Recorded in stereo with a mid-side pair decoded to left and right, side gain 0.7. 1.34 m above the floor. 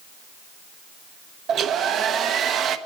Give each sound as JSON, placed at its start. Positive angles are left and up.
{"t": 1.5, "sound": "a hair dryer", "azimuth_deg": -45, "distance_m": 0.9}